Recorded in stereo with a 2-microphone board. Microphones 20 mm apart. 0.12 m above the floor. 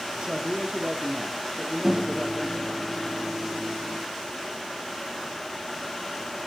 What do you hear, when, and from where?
0.2 s a man speaking: 50° right (ahead or behind), 6 m
1.8 s a microwave: 5° right (ahead or behind), 0.8 m